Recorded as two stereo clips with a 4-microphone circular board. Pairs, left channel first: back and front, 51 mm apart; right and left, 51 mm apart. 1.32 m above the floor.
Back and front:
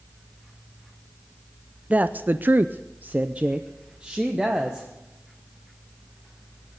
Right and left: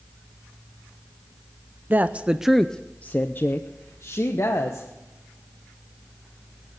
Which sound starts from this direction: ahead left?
A woman speaking, at 1.9 s.